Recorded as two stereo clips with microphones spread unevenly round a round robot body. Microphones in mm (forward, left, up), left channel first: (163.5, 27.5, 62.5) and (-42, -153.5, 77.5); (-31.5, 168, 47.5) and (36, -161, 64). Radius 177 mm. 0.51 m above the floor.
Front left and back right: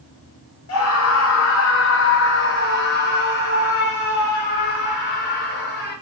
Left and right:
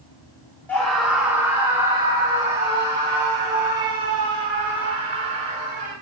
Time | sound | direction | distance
0.7 | a scream | 20° left | 2.5 m